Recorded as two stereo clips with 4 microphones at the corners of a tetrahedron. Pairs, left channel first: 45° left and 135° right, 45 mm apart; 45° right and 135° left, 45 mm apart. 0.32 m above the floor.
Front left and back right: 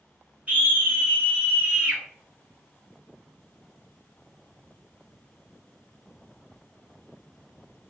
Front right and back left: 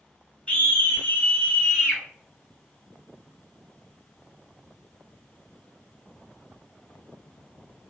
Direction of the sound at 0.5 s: 95° right.